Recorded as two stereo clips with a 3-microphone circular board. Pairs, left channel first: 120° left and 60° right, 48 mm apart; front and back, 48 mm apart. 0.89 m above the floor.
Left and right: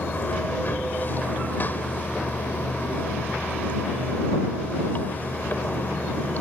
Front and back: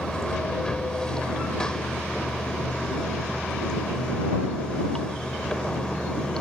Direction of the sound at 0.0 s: 75° left.